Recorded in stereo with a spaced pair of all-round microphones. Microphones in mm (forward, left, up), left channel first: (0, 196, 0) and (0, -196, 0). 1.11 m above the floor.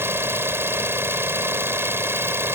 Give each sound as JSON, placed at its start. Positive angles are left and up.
{"t": 0.0, "sound": "an engine running", "side_deg": -5}